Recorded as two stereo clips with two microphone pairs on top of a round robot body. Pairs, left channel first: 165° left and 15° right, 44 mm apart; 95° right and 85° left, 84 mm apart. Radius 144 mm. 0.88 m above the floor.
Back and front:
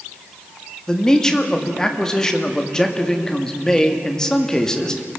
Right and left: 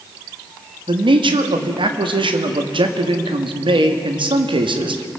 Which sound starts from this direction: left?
A man speaking, at 0.9 s.